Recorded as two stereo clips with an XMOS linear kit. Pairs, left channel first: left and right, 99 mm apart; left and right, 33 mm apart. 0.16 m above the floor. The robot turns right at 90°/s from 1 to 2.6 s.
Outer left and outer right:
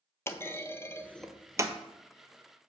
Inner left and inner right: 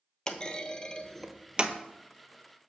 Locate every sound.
0.3 s a clunk: 25° left (ahead or behind), 0.6 m; by 1.8 s 45° right (ahead or behind), 0.6 m